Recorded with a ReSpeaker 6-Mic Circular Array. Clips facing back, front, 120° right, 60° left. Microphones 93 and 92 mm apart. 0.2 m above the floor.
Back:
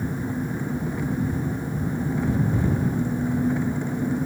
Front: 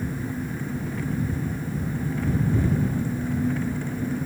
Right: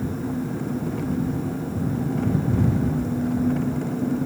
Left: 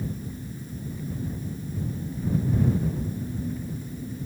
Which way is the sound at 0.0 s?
110° right.